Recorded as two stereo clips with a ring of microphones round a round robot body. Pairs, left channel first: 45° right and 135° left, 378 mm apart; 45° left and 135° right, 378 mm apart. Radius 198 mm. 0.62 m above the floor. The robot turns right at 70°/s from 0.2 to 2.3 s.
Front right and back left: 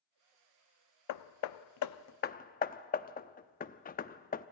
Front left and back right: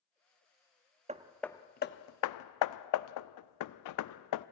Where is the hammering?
65° right, 0.6 m; by 4.5 s 20° left, 0.6 m.